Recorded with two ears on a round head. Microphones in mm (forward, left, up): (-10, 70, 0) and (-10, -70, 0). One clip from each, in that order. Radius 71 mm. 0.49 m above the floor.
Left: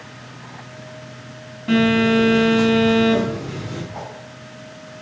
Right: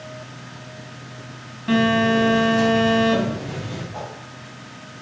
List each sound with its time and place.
1.7 s a phone buzzing: 15° right (ahead or behind), 3 m
3.9 s a whoosh: 55° right (ahead or behind), 3 m